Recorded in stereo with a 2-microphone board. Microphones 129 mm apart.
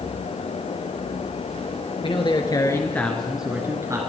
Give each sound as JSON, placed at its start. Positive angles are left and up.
{"t": 2.0, "sound": "a man speaking", "side_deg": 45, "distance_m": 2.5}